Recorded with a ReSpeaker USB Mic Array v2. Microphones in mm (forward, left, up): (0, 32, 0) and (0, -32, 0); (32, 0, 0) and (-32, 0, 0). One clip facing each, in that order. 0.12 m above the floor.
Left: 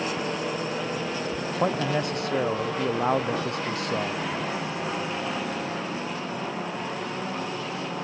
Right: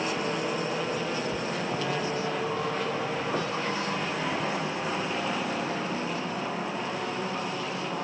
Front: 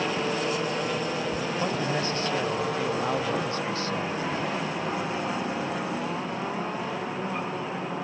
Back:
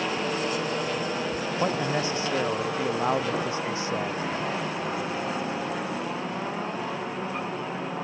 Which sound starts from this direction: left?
A man speaking, at 1.6 s.